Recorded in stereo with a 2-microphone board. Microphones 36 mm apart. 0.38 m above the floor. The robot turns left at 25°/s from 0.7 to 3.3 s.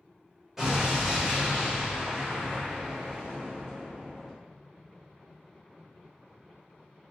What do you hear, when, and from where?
0.6 s an explosion: 15° right (ahead or behind), 0.9 m; by 4.3 s 30° right (ahead or behind), 0.9 m